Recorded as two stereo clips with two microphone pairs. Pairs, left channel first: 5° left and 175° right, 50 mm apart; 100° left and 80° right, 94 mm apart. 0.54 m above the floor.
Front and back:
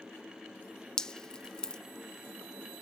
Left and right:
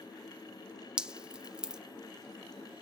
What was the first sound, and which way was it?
Dripping, 20° right.